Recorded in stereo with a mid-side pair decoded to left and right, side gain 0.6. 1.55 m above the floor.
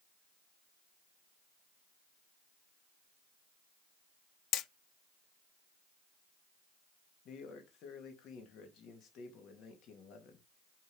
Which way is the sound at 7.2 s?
55° left.